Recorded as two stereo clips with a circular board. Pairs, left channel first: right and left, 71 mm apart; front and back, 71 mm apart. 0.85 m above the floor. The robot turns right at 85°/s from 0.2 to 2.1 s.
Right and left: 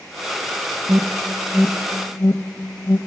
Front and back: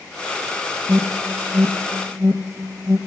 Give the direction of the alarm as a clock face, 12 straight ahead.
8 o'clock.